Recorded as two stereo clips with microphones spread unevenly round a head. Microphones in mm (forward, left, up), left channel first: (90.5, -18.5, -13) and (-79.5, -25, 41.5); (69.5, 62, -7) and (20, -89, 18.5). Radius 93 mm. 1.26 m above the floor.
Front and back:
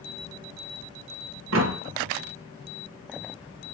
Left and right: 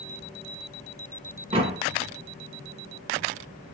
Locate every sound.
1.5 s a door slam: 175° right, 1.2 m